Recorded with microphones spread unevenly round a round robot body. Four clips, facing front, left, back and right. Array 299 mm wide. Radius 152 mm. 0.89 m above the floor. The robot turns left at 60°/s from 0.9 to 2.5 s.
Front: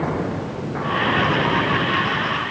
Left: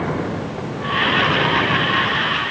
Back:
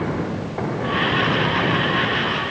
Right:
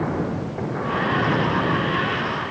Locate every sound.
Only background noise.